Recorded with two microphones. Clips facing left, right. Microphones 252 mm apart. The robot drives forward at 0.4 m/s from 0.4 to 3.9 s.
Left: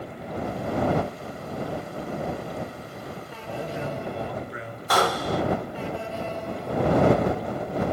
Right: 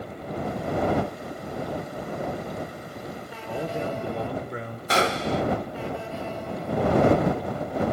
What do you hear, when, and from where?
3.5 s a man speaking: 55° right (ahead or behind), 1.9 m; by 4.8 s 50° right (ahead or behind), 2.0 m
4.9 s a gunshot: 25° right (ahead or behind), 1.3 m